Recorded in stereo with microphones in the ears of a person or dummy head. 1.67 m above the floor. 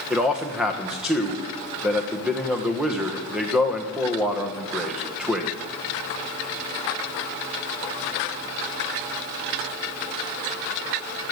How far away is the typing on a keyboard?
I don't hear typing on a keyboard.